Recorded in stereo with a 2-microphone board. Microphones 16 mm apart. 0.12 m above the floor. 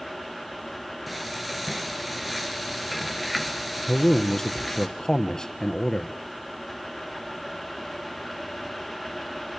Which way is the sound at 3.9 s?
40° left (ahead or behind).